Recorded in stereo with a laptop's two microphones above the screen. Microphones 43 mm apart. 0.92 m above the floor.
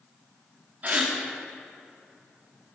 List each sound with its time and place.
0.8 s a gasp: 35° right (ahead or behind), 2.5 m